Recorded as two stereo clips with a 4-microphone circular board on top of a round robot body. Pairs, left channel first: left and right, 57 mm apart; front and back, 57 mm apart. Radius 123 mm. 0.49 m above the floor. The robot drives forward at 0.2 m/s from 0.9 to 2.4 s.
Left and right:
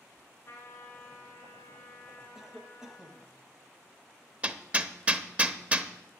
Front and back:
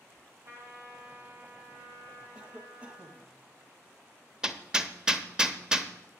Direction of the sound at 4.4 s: 120° right.